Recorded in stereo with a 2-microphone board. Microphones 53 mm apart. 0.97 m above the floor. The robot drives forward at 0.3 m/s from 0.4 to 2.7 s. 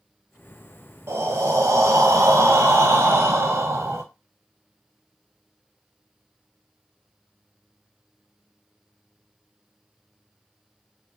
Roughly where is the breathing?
Right.